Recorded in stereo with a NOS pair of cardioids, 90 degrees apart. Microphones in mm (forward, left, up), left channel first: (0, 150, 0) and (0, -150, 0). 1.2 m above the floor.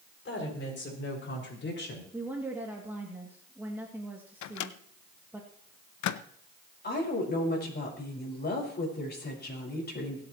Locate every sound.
0.2 s a woman speaking: 40° left, 7 m; by 2.0 s 35° left, 5 m
2.1 s a woman speaking: 5° right, 2.5 m
4.4 s a microwave: 70° left, 0.8 m
6.8 s a woman speaking: 35° left, 5.5 m